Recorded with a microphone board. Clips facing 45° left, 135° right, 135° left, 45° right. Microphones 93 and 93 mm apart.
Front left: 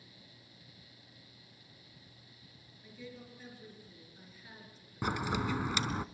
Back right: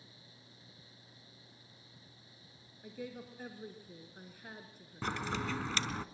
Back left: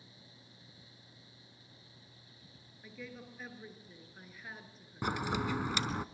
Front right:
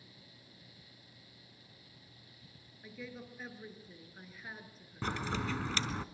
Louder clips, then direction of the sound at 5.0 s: Front left 3 dB, back left 2 dB; 95° left.